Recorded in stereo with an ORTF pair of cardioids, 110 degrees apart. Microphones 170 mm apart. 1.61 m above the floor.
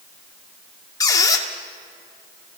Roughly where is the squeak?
Ahead.